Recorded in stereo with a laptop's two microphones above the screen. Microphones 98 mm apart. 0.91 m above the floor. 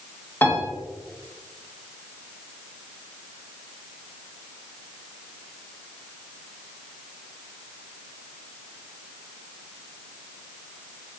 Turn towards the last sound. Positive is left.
turn(degrees=20)  # may be behind; listen again after turning